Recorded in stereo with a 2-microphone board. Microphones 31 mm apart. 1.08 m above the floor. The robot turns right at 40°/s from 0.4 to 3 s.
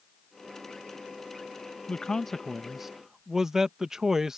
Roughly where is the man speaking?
Behind left.